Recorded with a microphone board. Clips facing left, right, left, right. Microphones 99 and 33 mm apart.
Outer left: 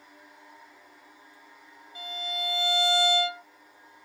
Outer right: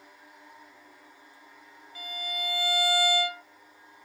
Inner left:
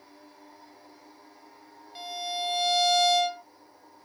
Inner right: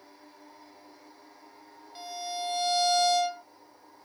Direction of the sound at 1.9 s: 20° left (ahead or behind).